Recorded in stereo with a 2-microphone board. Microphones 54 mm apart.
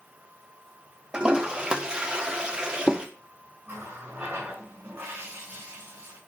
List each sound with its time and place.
1.1 s a toilet flushing: 15° right (ahead or behind), 1.2 m
3.7 s a running tap: 35° right (ahead or behind), 6 m